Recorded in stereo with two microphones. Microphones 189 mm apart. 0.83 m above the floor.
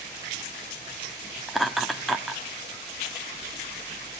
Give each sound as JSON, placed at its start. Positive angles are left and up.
{"t": 1.5, "sound": "laughter", "side_deg": 0, "distance_m": 1.2}